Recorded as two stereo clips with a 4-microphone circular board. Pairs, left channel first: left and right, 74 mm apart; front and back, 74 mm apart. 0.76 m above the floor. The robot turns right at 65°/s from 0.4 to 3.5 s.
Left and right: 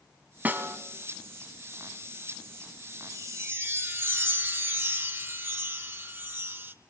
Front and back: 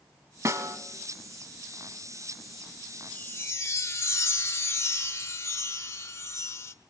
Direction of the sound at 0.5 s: 150° right.